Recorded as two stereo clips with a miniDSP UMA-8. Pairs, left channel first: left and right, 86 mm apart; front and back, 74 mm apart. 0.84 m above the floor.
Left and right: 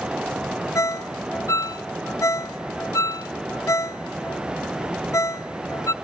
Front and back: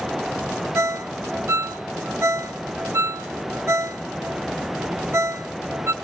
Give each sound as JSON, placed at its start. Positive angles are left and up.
{"t": 0.8, "sound": "a ringtone", "azimuth_deg": 135, "distance_m": 0.6}